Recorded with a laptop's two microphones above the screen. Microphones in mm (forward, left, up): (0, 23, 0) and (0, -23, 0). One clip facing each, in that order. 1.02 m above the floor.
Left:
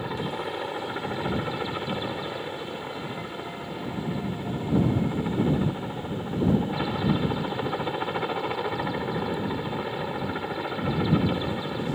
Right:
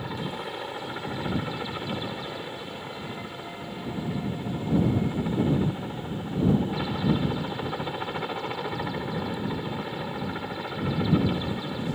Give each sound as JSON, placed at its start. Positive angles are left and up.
{"t": 0.0, "sound": "a helicopter", "side_deg": 5}